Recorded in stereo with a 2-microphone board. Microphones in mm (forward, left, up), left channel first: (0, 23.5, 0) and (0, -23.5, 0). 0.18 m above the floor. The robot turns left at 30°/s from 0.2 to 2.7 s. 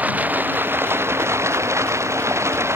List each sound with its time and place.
0.0 s running water: 35° right; by 2.8 s 110° right